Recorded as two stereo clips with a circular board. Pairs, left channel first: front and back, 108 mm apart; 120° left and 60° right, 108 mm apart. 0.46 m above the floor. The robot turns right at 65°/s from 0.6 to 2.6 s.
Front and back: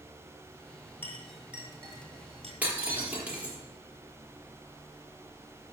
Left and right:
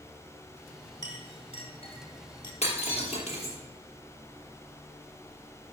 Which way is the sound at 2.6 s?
105° left.